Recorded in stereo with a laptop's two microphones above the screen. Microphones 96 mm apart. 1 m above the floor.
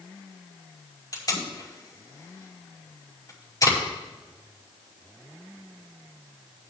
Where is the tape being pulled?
40° left (ahead or behind), 5 m.